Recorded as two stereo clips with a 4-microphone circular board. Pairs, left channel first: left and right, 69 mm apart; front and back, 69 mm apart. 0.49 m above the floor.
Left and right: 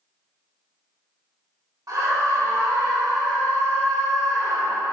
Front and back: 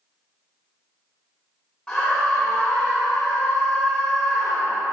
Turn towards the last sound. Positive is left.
turn(degrees=-75)